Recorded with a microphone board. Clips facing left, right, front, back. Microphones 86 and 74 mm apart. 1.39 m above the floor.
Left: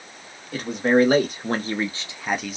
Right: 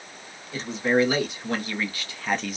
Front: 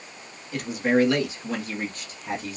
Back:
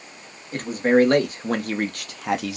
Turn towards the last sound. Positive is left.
turn(degrees=180)